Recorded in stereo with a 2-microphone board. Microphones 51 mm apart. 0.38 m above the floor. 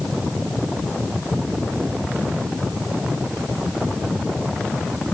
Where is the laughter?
I don't hear laughter.